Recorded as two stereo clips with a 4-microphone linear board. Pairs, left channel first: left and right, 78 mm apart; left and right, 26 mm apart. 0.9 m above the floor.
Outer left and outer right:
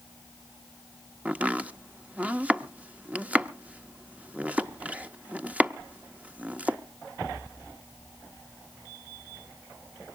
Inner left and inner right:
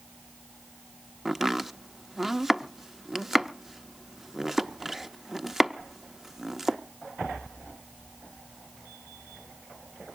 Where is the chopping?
20° right (ahead or behind), 0.6 m.